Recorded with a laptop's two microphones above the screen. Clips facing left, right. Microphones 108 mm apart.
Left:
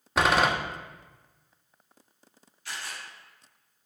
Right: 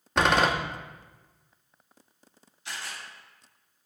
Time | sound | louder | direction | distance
0.2 | a door slam | even | 5° left (ahead or behind) | 0.8 m
2.6 | a camera shutter | even | 20° right (ahead or behind) | 3 m